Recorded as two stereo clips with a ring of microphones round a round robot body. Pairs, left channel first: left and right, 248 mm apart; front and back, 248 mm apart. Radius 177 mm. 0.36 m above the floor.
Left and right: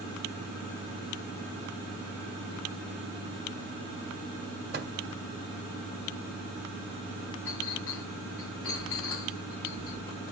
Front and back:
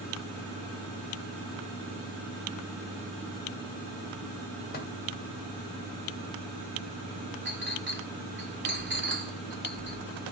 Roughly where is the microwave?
Ahead right.